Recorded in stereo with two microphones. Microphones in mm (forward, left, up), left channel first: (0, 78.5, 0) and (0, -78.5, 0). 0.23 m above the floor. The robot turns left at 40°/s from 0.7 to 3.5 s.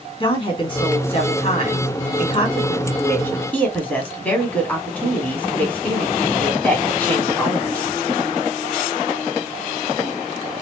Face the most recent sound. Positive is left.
turn(degrees=15)